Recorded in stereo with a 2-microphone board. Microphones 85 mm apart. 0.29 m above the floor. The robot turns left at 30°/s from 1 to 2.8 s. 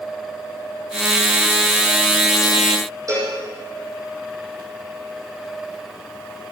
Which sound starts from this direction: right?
A cowbell, at 3.1 s.